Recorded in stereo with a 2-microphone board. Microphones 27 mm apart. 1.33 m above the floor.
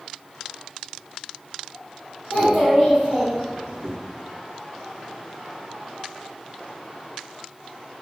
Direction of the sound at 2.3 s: 30° right (ahead or behind).